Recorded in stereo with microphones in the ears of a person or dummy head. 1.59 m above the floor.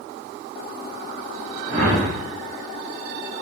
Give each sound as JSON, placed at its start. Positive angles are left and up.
{"t": 1.7, "sound": "a whoosh", "side_deg": -35, "distance_m": 1.0}